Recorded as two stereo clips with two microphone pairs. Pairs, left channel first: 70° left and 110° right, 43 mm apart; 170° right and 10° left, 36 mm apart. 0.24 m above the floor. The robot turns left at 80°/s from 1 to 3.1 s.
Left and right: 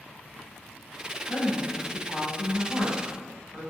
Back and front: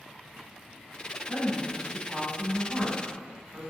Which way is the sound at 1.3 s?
135° left.